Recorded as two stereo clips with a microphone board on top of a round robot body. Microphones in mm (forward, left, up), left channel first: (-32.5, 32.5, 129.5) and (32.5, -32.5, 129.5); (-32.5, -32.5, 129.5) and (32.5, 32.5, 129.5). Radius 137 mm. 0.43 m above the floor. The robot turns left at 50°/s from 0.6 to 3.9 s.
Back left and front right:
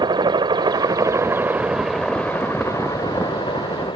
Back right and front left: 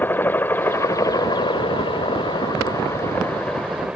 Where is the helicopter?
70° right; by 4.0 s 125° left.